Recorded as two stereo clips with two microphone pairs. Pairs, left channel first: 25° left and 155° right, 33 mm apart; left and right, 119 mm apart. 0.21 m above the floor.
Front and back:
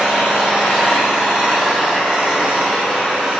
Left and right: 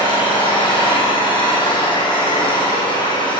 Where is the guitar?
I don't hear a guitar.